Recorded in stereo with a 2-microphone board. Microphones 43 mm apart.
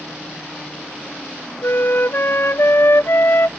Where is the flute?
55° left (ahead or behind).